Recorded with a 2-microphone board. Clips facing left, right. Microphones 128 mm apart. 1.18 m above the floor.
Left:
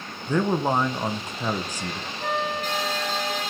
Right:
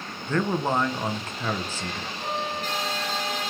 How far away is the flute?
About 4 m.